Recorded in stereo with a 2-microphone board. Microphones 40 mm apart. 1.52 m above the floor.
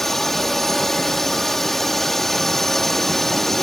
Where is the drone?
5° left (ahead or behind).